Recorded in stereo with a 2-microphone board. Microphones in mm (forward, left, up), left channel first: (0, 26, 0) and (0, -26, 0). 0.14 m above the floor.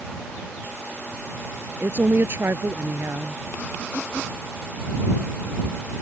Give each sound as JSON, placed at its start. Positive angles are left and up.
{"t": 1.8, "sound": "a woman speaking", "side_deg": -50}